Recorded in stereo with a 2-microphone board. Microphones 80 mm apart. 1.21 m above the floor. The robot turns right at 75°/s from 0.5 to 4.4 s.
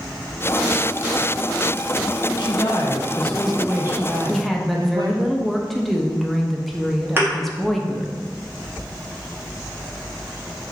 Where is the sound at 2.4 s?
100° left, 0.5 m; by 5.3 s 105° right, 0.5 m.